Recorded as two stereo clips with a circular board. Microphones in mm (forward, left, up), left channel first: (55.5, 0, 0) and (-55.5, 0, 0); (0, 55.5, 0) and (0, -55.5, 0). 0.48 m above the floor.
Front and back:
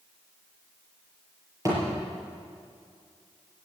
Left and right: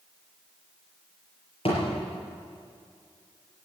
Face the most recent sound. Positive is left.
turn(degrees=120)